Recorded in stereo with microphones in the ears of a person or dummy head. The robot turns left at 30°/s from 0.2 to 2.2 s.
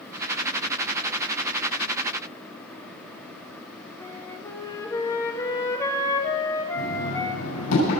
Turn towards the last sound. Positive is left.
turn(degrees=85)